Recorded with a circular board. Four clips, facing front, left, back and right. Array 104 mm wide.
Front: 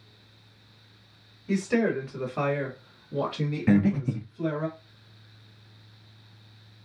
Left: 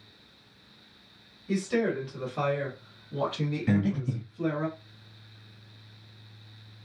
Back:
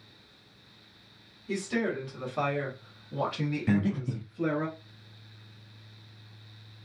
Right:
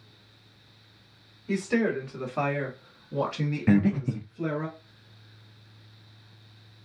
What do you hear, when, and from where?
1.5 s a woman speaking: 35° right, 1.4 m; by 4.7 s 160° right, 1.3 m
3.7 s breathing: 45° right, 0.5 m